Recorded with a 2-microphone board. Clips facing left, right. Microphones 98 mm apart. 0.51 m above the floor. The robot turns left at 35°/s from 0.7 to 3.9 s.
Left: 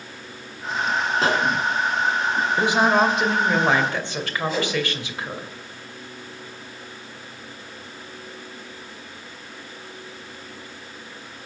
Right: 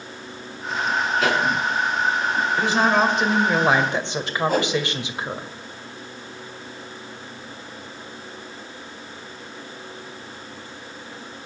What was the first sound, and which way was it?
A pop, 30° left (ahead or behind).